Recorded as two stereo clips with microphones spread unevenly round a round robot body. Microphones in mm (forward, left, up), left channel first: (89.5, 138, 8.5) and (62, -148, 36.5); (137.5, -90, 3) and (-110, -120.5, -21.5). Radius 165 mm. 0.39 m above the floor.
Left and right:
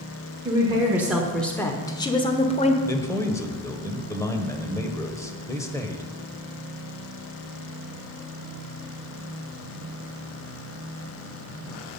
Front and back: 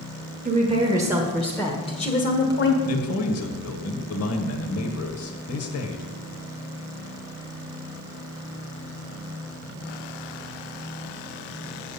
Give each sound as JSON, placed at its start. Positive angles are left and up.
{"t": 0.5, "sound": "a woman speaking", "azimuth_deg": -170, "distance_m": 1.3}
{"t": 2.9, "sound": "a man speaking", "azimuth_deg": 10, "distance_m": 1.3}